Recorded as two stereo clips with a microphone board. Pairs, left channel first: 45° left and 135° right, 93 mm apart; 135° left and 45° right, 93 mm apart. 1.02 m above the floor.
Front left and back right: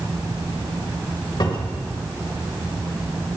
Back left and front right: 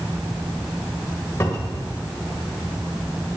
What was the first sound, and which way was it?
A cupboard door, 75° left.